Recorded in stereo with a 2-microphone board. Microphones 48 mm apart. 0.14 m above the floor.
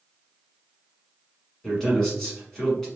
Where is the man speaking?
10° left (ahead or behind), 1.1 m.